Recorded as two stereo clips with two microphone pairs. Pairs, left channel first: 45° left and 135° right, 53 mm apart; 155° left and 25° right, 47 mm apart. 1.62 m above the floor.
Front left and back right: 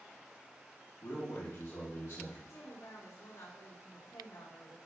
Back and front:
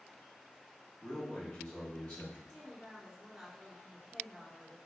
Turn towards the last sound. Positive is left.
turn(degrees=65)